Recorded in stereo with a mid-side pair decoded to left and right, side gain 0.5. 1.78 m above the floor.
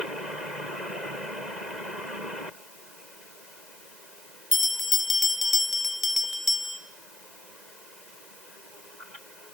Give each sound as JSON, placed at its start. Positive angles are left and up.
{"t": 4.5, "sound": "a bell", "azimuth_deg": 20, "distance_m": 0.9}